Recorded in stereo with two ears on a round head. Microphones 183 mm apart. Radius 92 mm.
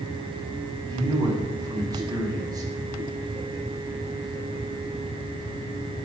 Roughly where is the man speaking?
Centre.